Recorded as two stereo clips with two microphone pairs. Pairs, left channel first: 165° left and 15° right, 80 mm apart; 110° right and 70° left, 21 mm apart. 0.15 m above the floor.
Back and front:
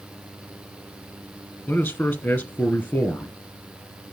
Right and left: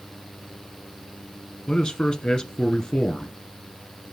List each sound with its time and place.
1.7 s a man speaking: 140° right, 1.8 m